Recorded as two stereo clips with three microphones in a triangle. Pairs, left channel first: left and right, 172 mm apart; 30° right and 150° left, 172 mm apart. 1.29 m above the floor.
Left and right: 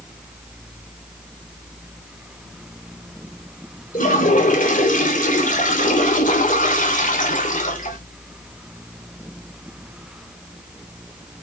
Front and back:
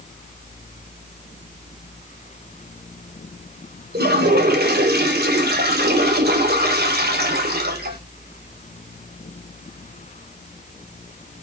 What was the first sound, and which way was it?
A toilet flushing, 130° left.